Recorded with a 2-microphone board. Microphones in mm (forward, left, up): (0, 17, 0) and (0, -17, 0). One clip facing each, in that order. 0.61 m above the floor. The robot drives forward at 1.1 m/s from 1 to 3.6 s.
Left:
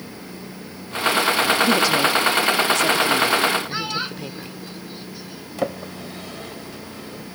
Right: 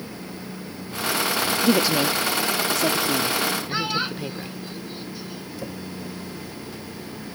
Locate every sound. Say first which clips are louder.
1.6 s a woman speaking: left 2 dB; 10° right (ahead or behind); by 4.6 s 5° right (ahead or behind)
3.7 s a child speaking: right 1 dB; 5° right (ahead or behind)
5.6 s a drawer: left 11 dB; 80° left